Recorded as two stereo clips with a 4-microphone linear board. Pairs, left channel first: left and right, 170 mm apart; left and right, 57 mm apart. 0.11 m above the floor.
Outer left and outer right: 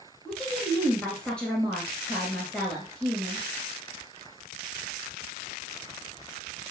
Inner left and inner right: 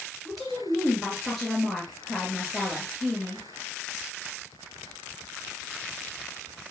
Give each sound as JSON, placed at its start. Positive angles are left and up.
{"t": 0.2, "sound": "a woman speaking", "side_deg": 5, "distance_m": 2.0}